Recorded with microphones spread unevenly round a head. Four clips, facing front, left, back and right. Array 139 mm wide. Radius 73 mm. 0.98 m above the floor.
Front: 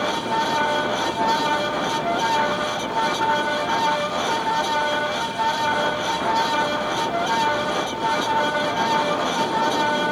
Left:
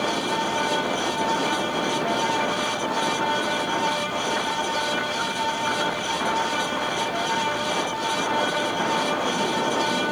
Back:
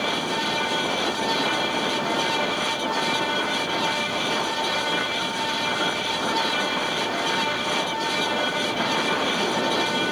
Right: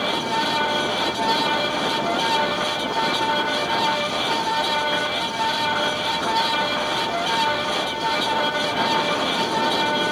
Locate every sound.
Only background noise.